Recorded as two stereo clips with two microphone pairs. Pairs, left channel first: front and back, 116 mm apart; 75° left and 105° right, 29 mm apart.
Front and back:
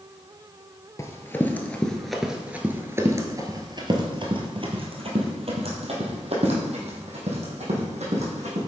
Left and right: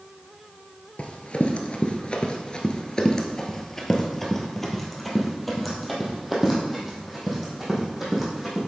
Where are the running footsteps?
55° left, 1.3 m; by 8.6 s 175° left, 3.5 m.